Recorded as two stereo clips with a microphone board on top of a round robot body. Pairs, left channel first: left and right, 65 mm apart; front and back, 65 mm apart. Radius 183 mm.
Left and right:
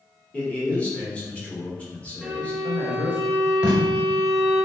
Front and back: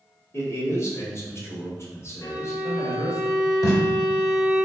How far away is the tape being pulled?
About 0.6 m.